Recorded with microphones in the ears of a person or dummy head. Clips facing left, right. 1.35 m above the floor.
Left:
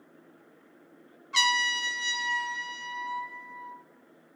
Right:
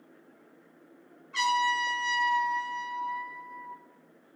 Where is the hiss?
No hiss in this recording.